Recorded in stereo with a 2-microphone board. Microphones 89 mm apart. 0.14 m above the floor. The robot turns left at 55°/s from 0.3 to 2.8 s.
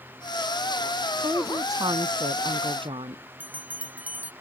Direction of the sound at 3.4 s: 20° right (ahead or behind).